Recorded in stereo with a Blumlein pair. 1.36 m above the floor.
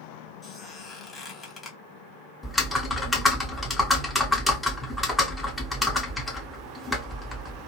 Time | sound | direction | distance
0.4 | a squeak | 10° left | 0.8 m
2.4 | typing on a keyboard | 5° left | 0.7 m